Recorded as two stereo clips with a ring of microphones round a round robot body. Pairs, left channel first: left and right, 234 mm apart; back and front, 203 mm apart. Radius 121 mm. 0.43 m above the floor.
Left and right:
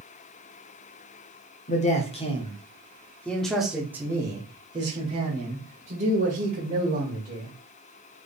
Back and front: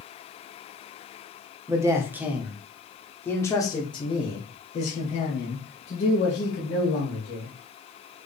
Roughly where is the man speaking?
Ahead left.